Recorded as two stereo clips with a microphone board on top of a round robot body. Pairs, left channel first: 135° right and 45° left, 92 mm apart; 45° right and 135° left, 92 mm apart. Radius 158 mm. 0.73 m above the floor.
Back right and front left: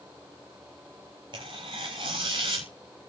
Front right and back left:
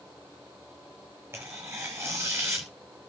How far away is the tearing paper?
About 0.6 m.